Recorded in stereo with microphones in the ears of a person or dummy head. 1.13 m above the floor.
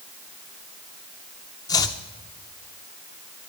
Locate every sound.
1.7 s chopping: 20° left (ahead or behind), 0.9 m